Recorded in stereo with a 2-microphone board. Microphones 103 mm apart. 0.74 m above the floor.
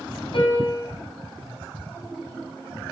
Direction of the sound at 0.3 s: 55° left (ahead or behind).